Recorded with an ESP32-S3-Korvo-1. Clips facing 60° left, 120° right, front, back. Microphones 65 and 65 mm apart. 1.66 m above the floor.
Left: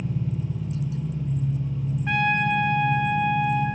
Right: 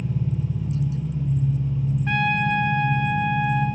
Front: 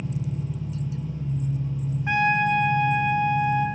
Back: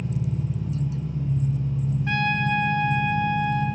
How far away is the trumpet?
About 0.5 m.